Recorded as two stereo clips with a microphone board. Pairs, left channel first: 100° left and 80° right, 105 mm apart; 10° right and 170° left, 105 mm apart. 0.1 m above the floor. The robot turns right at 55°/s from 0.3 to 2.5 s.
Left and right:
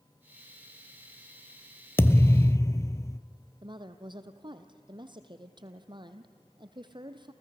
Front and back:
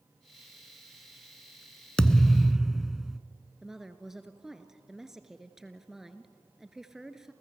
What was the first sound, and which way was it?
A thud, 60° left.